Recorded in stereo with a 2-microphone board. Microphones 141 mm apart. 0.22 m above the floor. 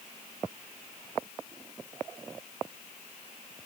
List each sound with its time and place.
Only background noise.